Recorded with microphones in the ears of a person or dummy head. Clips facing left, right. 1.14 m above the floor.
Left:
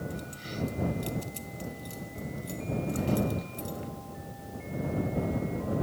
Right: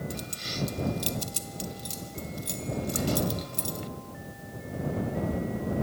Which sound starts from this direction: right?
Keys jangling, at 0.1 s.